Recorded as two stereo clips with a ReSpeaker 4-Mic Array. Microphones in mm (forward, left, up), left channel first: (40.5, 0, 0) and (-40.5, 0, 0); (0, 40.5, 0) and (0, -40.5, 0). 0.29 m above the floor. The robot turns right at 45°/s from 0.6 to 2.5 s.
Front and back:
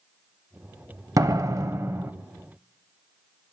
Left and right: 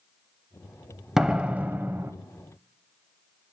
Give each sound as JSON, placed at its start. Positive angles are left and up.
{"t": 1.2, "sound": "a door slam", "azimuth_deg": -170, "distance_m": 0.8}